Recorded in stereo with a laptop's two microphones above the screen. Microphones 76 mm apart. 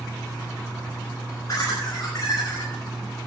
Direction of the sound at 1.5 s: 45° left (ahead or behind).